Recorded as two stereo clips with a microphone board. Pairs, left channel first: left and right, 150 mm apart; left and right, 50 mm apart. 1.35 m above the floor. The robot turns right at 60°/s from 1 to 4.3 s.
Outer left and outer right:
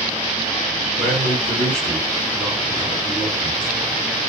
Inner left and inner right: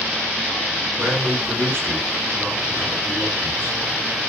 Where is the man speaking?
115° right, 2.5 m; by 3.8 s 55° left, 2.5 m.